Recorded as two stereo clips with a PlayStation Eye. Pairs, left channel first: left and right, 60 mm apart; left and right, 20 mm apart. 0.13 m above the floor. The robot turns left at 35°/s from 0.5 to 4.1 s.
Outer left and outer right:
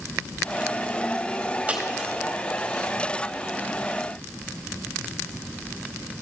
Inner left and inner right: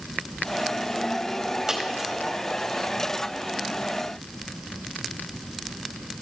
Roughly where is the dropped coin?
Right.